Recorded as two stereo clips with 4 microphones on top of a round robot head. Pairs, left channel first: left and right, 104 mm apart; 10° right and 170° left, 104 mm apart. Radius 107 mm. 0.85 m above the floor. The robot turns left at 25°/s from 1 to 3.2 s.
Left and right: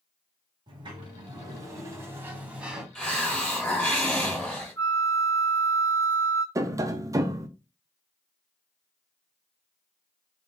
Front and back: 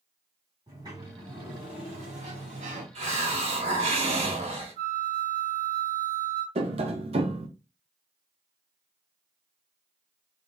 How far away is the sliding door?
About 1.2 m.